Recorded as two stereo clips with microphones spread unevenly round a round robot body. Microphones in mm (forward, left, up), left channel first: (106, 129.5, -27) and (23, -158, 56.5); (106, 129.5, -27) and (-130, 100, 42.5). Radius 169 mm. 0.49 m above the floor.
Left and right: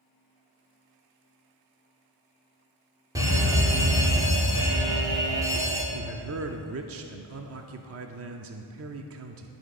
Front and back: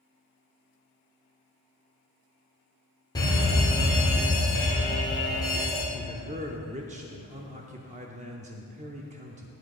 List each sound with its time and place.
3.1 s a fire alarm: 10° right, 2.5 m
5.9 s a man speaking: 110° right, 0.7 m